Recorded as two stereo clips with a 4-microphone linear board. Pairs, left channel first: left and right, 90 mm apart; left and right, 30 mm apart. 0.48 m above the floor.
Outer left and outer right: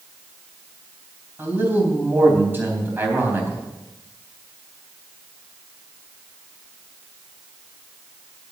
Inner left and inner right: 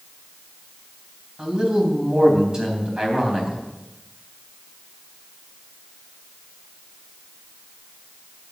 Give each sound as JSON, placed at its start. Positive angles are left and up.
{"t": 1.4, "sound": "a man speaking", "side_deg": -25, "distance_m": 3.5}